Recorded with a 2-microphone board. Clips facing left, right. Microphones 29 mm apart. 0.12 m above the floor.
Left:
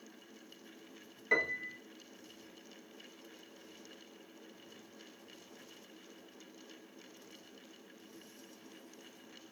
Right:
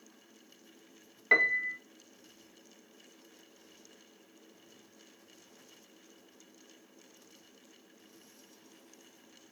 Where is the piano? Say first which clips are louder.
Right 7 dB; 35° right (ahead or behind), 0.6 m.